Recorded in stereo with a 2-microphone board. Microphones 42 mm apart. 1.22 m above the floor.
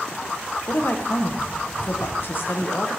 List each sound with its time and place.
0.7 s a woman speaking: 60° left (ahead or behind), 0.7 m